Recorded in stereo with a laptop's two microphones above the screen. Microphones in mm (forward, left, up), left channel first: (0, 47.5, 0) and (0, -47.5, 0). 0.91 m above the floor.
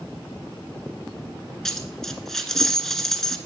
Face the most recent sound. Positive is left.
turn(degrees=5)  # may be behind; listen again after turning